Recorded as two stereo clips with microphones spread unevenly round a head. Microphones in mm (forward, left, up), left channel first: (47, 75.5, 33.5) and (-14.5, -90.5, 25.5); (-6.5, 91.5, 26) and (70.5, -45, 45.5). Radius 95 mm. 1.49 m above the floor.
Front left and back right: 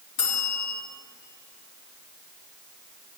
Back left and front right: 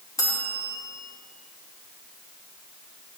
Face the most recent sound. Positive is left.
turn(degrees=50)